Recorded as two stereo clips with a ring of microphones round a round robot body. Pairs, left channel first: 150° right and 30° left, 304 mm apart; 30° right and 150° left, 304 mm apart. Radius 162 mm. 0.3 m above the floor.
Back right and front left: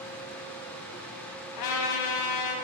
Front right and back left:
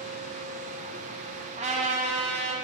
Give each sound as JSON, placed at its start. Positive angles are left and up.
{"t": 1.6, "sound": "a trumpet", "azimuth_deg": -140, "distance_m": 0.9}